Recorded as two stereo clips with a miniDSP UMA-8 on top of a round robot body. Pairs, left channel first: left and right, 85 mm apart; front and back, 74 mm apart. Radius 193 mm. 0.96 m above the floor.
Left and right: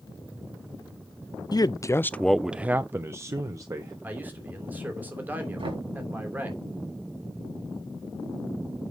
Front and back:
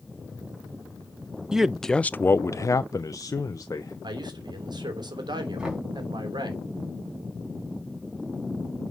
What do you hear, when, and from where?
1.5 s a man speaking: 100° left, 0.7 m; by 3.9 s 40° right, 1.5 m
4.0 s a man speaking: 160° right, 3 m
5.6 s knocking: 100° right, 5.5 m